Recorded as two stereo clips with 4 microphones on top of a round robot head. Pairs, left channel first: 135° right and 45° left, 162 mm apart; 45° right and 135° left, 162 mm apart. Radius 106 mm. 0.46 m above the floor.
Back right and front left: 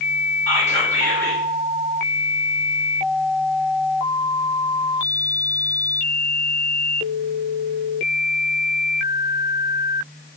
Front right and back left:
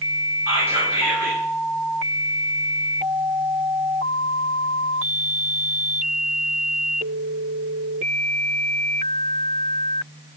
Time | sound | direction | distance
0.5 | whispering | straight behind | 1.3 m